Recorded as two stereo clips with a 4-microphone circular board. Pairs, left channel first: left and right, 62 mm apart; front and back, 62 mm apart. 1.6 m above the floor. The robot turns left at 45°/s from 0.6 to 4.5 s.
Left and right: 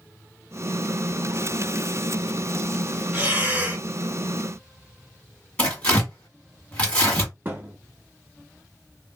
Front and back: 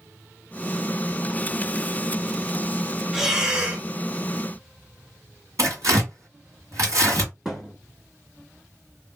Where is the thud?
100° right, 1.2 m.